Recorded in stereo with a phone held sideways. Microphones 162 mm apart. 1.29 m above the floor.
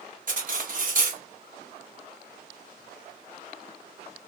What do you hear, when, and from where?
0.3 s cutlery clinking: 55° right (ahead or behind), 0.9 m